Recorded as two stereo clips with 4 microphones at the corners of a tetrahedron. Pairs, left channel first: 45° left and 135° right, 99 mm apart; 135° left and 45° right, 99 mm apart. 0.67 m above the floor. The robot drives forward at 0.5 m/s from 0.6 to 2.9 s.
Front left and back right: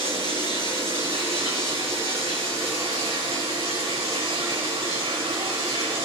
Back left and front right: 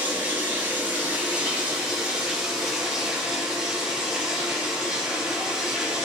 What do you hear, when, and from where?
0.0 s running water: 115° right, 4.5 m; by 6.1 s 130° right, 5.5 m